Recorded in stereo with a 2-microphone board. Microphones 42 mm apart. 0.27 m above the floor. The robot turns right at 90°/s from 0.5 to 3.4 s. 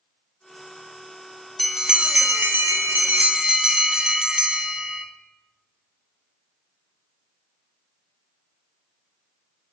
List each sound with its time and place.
1.6 s a bell: 175° left, 0.6 m; by 5.0 s 25° right, 0.6 m